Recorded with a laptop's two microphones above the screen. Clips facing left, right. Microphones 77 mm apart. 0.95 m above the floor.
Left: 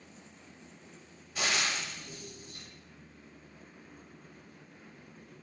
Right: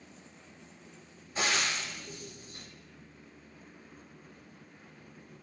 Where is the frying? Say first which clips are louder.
Right 1 dB; 35° right (ahead or behind), 1.4 m.